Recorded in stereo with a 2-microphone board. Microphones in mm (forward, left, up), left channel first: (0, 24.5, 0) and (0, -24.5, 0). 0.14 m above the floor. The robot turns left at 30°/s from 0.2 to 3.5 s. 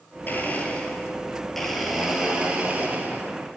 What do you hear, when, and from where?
0.3 s a blender: 45° left, 1.1 m; by 3.4 s 50° right, 1.1 m